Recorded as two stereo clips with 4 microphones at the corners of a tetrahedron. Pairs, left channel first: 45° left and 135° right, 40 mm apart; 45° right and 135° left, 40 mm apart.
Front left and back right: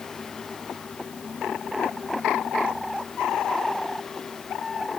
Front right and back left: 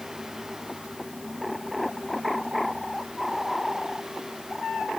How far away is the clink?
I don't hear a clink.